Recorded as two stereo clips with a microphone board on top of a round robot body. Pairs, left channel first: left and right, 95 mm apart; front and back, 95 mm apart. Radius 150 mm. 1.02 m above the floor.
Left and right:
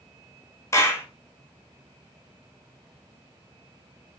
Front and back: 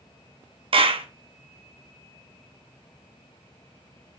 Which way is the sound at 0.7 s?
155° left.